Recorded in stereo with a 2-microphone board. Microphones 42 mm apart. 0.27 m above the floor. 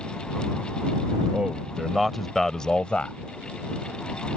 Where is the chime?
No chime in this recording.